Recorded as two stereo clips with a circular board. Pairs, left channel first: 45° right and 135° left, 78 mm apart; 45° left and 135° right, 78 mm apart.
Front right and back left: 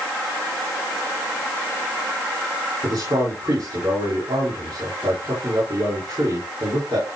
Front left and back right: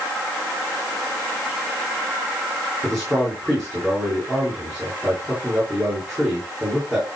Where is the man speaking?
140° left, 6.5 m.